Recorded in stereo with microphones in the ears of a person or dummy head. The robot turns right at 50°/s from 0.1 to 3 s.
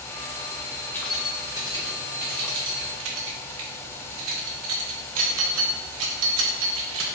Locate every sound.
0.9 s keys jangling: 15° left (ahead or behind), 0.7 m; by 7.0 s 85° right, 0.7 m